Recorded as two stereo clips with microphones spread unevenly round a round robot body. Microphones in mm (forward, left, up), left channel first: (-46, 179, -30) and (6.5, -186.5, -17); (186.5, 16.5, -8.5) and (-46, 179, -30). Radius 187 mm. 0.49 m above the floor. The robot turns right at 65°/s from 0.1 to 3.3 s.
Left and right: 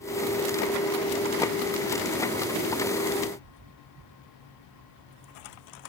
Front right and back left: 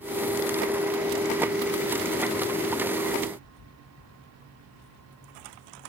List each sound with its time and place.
Only background noise.